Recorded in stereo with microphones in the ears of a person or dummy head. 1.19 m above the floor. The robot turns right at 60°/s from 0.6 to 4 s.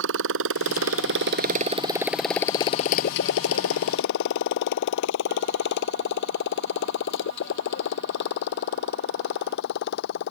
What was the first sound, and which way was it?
A motorcycle, 70° right (ahead or behind).